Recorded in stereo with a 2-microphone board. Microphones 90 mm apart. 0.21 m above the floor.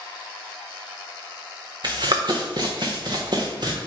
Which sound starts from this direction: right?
Running footsteps, at 1.8 s.